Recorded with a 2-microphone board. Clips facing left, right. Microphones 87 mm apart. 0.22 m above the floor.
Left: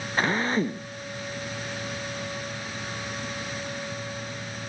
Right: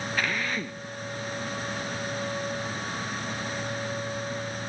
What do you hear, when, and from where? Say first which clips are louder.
0.2 s a drill: left 7 dB; 35° left (ahead or behind)